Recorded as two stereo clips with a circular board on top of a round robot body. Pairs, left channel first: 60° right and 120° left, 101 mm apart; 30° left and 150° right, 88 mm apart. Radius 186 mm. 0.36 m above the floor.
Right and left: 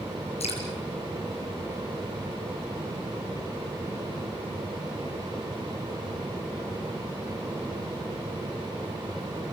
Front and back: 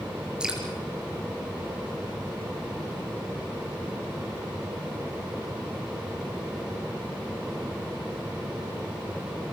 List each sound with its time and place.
0.4 s dripping: 70° right, 5.5 m